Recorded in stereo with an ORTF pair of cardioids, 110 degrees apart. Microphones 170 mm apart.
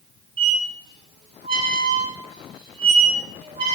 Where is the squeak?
35° right, 1.5 m.